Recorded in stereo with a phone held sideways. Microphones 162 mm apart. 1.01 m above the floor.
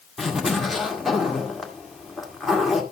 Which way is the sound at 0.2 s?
Centre (ahead or behind).